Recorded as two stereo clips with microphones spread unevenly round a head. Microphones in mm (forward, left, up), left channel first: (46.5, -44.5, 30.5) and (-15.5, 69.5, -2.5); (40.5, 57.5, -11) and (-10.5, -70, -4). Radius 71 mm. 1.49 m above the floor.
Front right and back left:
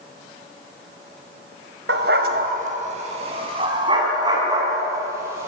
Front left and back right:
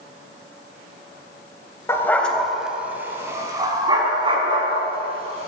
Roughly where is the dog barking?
Behind left.